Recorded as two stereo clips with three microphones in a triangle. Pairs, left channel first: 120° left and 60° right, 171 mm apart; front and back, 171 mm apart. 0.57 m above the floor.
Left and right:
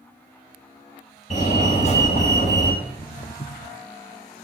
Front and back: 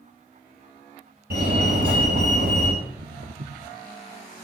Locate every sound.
1.3 s a fire alarm: 165° left, 6 m
2.8 s footsteps: 160° right, 1.3 m